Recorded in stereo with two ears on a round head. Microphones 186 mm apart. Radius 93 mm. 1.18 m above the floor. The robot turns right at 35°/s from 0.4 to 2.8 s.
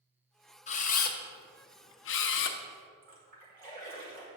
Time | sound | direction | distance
0.7 | a camera shutter | 35° left (ahead or behind) | 0.6 m
3.0 | a splash | 40° right (ahead or behind) | 2 m